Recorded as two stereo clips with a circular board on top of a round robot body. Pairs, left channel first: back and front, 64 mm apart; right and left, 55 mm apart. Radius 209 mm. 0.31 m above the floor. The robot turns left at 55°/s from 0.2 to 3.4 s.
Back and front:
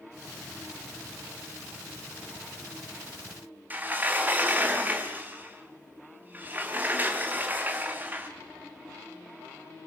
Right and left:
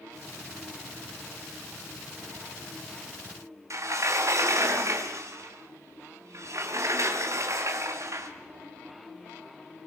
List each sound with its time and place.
3.7 s a sliding door: 60° left, 3 m